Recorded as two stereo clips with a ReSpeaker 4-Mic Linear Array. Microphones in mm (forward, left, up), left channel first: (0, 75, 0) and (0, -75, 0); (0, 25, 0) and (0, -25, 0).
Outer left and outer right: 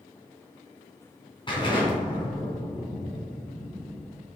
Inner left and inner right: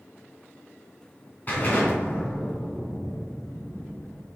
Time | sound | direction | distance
1.5 | an explosion | 35° left (ahead or behind) | 2.5 m